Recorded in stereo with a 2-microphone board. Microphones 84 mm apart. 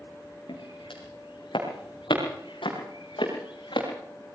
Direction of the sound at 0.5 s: 80° left.